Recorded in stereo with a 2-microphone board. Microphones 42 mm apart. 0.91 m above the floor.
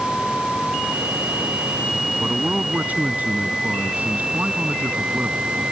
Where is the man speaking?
40° right (ahead or behind).